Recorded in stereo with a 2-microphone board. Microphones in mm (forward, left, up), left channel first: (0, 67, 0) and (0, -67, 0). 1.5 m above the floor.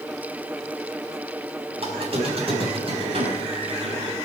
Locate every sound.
1.8 s a squeak: 50° right (ahead or behind), 5 m